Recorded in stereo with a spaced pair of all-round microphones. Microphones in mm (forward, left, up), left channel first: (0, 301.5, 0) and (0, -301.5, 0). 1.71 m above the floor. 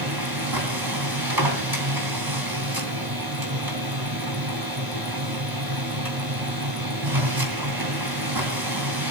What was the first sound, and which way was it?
A machine running, 35° right (ahead or behind).